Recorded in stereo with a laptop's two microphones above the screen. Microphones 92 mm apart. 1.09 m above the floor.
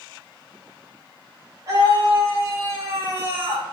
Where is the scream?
35° right (ahead or behind), 5.5 m; by 3.6 s 30° right (ahead or behind), 4 m.